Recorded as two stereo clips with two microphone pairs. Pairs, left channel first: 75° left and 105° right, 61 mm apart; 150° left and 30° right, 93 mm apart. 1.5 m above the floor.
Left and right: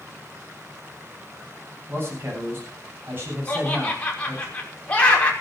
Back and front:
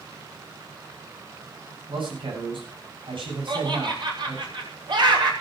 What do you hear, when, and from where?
1.9 s a man speaking: 55° right, 9 m
3.5 s laughter: 5° left, 6 m